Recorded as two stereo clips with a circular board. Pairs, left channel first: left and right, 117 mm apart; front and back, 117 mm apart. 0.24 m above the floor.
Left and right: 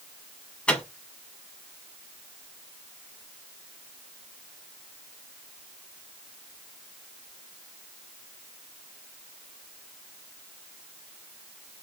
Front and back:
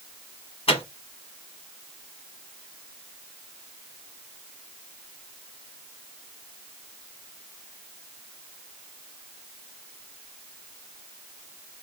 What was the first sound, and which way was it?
A microwave, 10° left.